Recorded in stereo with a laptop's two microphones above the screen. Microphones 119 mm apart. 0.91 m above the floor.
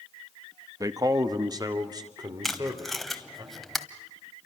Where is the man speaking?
30° right (ahead or behind), 1.0 m; by 3.4 s 35° right (ahead or behind), 4.5 m.